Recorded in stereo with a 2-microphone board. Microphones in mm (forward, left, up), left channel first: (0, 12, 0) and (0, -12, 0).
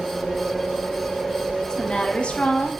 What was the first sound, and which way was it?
A woman speaking, 35° left (ahead or behind).